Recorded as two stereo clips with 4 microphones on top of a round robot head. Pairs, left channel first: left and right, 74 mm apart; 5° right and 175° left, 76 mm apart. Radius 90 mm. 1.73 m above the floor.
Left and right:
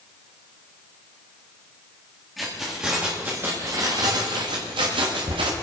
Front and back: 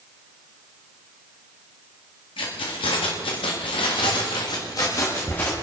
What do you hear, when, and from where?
2.4 s keys jangling: straight ahead, 2 m; by 5.5 s 80° right, 2.0 m